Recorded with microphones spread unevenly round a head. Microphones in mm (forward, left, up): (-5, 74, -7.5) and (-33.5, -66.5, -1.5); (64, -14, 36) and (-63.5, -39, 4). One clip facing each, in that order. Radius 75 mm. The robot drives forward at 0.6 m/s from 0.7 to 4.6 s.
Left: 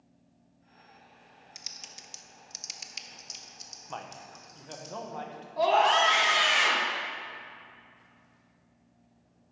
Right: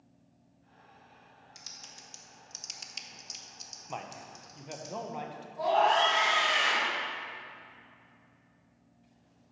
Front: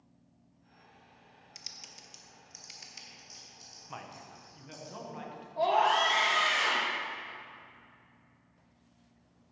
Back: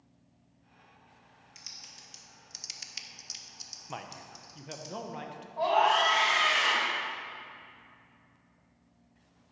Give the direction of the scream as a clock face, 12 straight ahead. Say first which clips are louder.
Left 2 dB, back 1 dB; 10 o'clock.